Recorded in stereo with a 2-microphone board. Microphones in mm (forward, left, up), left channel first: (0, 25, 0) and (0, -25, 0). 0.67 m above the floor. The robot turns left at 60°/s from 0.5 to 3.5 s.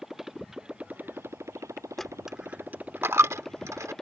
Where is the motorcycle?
10° right; by 4.0 s 170° left.